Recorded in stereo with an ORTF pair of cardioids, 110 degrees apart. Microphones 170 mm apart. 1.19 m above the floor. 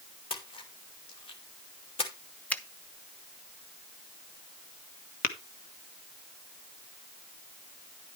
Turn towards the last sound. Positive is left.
turn(degrees=60)